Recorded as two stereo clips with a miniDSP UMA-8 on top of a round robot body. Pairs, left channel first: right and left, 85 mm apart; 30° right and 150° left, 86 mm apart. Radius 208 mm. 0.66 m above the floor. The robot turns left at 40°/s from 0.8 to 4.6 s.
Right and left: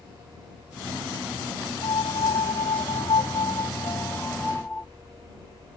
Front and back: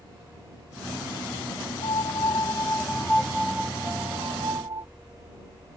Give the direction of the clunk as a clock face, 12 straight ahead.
No clunk in this recording.